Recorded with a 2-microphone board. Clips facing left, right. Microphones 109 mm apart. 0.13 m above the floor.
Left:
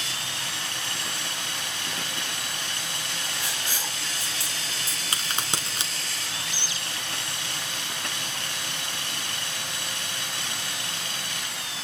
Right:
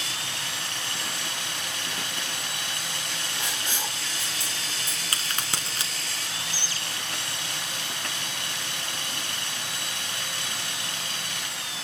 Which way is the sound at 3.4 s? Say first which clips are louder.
Right 1 dB; 25° right (ahead or behind).